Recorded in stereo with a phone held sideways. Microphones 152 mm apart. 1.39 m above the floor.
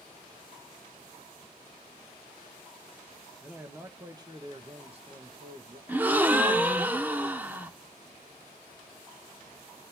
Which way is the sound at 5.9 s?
10° right (ahead or behind).